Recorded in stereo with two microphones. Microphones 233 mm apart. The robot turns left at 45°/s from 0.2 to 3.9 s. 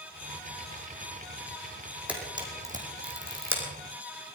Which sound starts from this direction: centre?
A camera shutter, at 2.1 s.